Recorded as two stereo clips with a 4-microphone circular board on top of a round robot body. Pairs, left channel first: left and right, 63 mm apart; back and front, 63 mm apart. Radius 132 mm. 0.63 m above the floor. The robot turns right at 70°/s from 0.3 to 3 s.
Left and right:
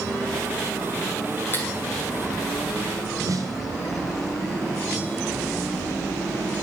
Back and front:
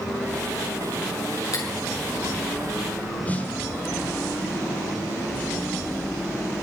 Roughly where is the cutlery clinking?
Behind left.